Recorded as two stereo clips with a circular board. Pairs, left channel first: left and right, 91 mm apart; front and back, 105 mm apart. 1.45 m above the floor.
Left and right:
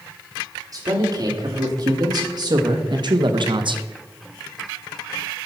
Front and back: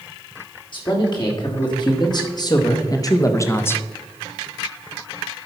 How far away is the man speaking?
About 3 m.